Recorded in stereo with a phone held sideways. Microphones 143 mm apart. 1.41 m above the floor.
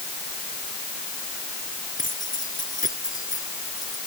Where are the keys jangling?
75° left (ahead or behind).